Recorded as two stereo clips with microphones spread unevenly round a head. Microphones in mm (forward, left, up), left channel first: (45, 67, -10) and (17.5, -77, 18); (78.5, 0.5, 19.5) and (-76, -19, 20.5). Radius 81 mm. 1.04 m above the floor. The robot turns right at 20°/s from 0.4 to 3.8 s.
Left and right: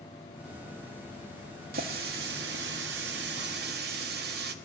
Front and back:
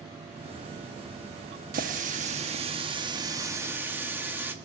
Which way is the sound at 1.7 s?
135° right.